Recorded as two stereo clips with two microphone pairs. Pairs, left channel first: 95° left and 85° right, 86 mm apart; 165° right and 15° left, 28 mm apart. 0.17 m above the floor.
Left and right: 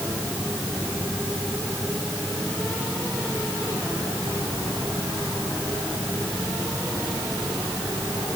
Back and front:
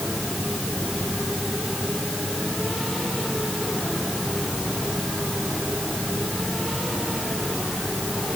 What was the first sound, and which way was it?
Only background noise.